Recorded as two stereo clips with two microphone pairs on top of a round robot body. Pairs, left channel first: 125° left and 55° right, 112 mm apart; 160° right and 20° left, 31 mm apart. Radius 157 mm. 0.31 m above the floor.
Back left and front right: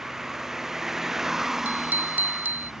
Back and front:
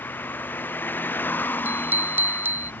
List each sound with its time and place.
0.0 s a vehicle: 140° right
1.6 s a bicycle bell: 20° left